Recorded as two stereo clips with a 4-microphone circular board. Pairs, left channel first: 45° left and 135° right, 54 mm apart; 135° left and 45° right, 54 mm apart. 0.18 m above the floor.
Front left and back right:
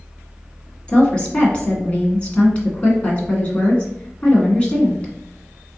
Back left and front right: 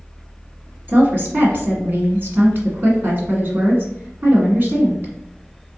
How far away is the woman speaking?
About 1.5 m.